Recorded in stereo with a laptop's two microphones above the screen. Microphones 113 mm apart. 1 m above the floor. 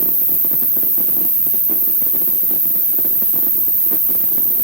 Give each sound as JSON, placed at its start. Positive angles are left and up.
{"t": 0.0, "sound": "an insect", "side_deg": 20, "distance_m": 2.5}